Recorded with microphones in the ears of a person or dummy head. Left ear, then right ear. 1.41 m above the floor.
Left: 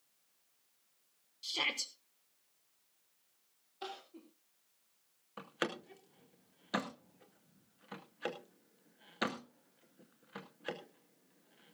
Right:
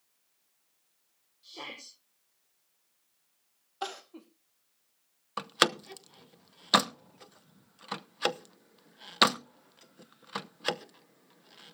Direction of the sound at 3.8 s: 50° right (ahead or behind).